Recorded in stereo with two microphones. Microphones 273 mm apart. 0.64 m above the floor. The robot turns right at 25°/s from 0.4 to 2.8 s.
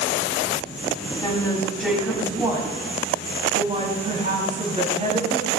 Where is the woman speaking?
165° left, 4.5 m; by 5.5 s 155° right, 4.5 m.